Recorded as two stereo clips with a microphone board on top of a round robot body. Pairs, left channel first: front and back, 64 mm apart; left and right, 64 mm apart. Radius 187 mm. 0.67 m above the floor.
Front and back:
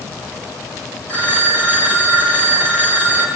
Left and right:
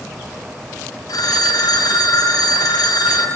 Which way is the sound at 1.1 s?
70° left.